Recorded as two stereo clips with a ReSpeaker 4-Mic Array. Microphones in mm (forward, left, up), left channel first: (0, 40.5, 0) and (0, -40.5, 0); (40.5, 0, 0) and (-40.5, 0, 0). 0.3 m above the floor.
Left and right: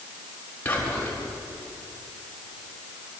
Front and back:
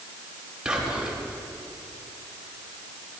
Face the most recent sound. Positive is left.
turn(degrees=120)